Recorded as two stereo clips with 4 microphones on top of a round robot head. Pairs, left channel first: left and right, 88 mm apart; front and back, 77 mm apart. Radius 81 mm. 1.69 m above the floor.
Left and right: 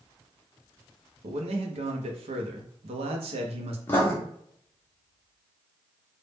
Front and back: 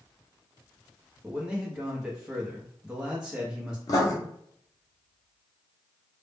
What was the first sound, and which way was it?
A man speaking, 95° right.